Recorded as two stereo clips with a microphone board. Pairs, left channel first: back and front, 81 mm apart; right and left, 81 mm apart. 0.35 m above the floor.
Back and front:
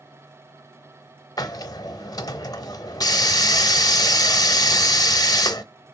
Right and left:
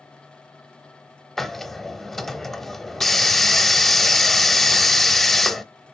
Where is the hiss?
175° right, 0.6 m.